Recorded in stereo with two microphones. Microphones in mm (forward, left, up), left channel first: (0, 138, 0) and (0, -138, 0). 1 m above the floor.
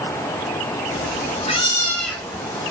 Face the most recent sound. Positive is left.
turn(degrees=-10)  # may be behind; listen again after turning